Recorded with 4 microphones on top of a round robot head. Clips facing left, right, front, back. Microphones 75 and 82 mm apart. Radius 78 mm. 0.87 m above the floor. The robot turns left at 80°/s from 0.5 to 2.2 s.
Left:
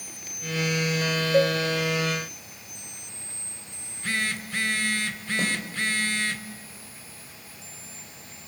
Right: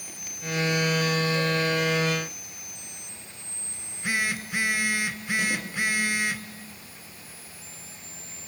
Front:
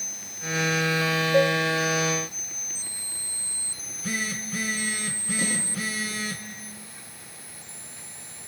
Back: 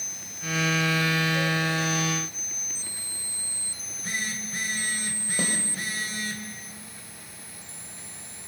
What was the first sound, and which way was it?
A cowbell, 50° left.